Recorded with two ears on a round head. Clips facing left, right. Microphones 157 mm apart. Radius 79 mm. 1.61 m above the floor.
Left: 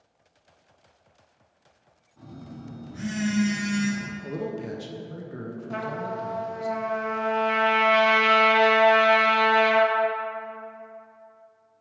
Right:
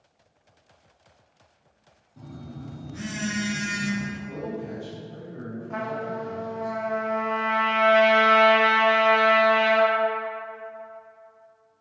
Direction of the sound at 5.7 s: 40° left (ahead or behind).